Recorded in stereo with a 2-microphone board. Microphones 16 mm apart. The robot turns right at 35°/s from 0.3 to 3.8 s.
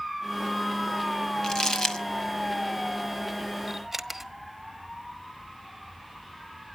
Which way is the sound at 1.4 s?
40° left (ahead or behind).